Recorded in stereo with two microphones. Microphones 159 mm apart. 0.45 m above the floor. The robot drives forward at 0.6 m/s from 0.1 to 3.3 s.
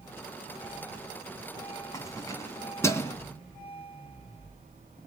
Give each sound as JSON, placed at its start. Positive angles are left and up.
{"t": 1.9, "sound": "keys jangling", "side_deg": 20, "distance_m": 2.0}